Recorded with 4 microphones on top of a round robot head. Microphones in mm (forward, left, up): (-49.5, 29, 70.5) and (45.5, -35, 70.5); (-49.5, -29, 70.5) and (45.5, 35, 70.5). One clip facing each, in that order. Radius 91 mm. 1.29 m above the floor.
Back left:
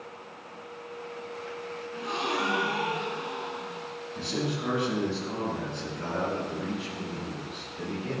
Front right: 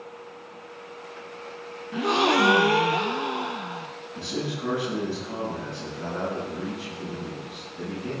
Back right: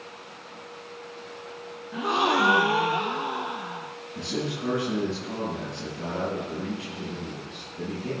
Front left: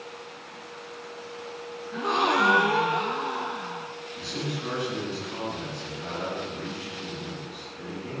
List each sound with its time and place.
1.9 s a gasp: 60° right, 0.7 m
4.2 s a man speaking: 120° right, 8 m